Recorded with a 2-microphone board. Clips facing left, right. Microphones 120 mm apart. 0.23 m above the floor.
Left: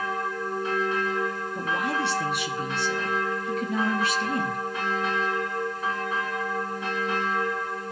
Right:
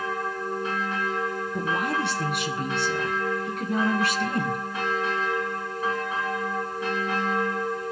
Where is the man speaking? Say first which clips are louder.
Right 1 dB; 55° right (ahead or behind), 3 m; by 4.6 s 60° right (ahead or behind), 3 m.